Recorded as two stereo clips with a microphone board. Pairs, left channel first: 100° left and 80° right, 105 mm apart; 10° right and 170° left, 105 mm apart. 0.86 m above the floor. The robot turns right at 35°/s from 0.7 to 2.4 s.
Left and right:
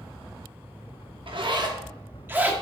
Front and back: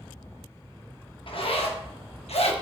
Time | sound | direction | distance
1.3 | a zipper | 45° right | 1.0 m